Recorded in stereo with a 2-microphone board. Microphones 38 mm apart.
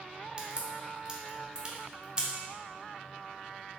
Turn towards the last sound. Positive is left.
turn(degrees=-25)  # may be behind; listen again after turning